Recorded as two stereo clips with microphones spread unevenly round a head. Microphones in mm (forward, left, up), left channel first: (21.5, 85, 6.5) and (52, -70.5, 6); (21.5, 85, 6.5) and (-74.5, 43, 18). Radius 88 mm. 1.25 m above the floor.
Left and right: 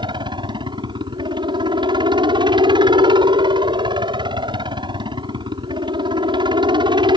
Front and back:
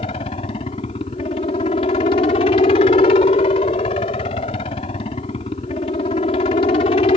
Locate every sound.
0.0 s a helicopter: 20° right